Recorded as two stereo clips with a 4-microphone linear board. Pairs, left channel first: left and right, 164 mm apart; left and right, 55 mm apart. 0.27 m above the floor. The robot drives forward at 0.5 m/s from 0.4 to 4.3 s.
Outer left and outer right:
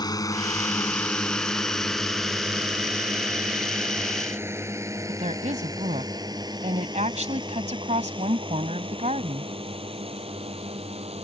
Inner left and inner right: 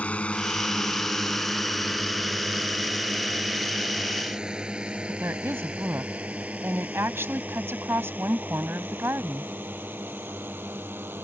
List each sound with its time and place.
0.0 s a drone: 25° left (ahead or behind); by 11.2 s 35° right (ahead or behind)
5.1 s a woman speaking: 45° right (ahead or behind)